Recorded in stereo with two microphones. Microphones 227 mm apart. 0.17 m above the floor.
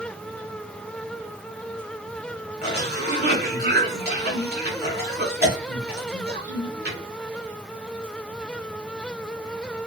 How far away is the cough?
About 1.5 m.